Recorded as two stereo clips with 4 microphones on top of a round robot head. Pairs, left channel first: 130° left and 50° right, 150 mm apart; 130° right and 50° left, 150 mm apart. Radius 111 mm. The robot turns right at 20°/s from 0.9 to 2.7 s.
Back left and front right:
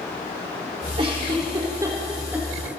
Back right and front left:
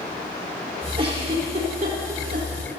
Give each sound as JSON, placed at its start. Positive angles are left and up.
{"t": 1.0, "sound": "a giggle", "azimuth_deg": 0, "distance_m": 4.5}